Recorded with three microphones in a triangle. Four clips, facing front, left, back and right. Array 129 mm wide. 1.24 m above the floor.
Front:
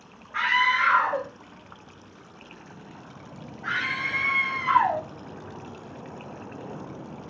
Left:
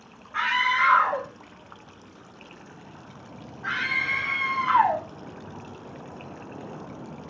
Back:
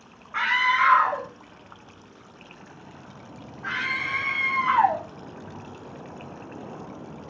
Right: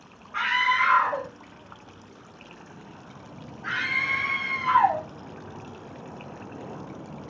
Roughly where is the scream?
Behind.